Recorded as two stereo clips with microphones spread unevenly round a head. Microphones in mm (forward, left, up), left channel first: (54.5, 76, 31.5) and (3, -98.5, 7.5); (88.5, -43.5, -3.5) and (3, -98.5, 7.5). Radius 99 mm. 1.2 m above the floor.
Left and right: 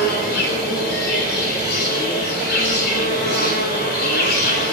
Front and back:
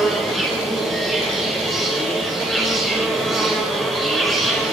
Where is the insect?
120° left, 4.5 m.